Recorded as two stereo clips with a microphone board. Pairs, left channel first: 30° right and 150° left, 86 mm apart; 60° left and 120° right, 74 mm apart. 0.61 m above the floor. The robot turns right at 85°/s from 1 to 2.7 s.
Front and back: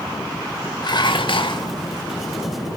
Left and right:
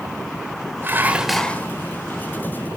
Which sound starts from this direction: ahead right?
Dishes clattering, at 0.8 s.